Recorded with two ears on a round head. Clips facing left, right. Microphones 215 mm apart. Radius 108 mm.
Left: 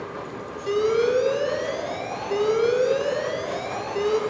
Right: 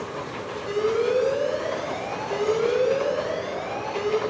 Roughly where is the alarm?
Left.